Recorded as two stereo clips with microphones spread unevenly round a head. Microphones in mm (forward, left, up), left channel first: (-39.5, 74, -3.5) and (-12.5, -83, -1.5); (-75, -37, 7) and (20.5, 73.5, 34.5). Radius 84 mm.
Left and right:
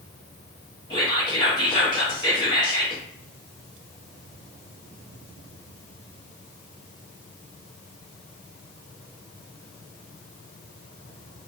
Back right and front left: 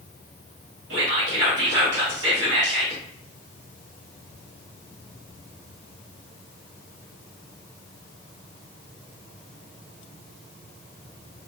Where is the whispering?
30° left, 1.2 m.